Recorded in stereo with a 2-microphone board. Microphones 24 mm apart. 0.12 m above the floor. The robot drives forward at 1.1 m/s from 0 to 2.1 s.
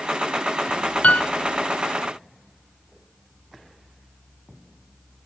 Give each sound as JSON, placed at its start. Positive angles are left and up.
{"t": 1.0, "sound": "a piano", "side_deg": 75}